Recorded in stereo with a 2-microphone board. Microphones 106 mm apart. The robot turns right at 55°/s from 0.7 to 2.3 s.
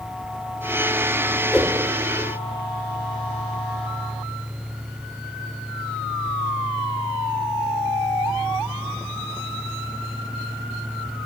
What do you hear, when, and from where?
1.5 s a whoosh: centre (ahead or behind), 0.5 m; by 1.8 s 10° left (ahead or behind), 0.5 m